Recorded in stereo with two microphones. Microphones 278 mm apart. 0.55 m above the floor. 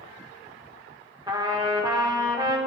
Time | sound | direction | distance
1.3 | a trumpet | 15° right (ahead or behind) | 1.0 m